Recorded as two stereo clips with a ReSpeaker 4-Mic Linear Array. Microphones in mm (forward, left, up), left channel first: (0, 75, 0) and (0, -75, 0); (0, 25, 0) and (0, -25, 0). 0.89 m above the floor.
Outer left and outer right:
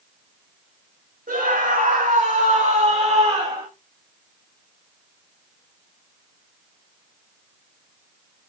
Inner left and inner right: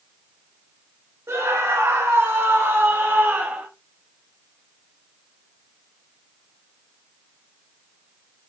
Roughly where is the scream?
Right.